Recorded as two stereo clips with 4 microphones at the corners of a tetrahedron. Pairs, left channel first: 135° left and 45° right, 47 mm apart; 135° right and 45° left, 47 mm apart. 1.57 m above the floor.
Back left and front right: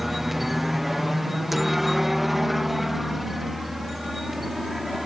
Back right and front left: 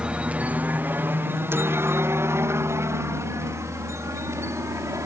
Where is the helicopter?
40° left; by 5.1 s 45° left.